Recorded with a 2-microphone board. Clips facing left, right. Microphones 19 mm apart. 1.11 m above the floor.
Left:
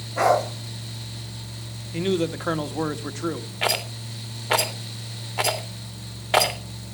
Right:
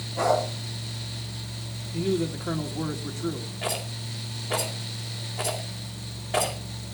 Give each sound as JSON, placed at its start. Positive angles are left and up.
{"t": 0.2, "sound": "a dog barking", "side_deg": 80, "distance_m": 7.5}
{"t": 1.9, "sound": "a man speaking", "side_deg": 60, "distance_m": 1.5}
{"t": 3.6, "sound": "a rattle", "side_deg": 70, "distance_m": 2.5}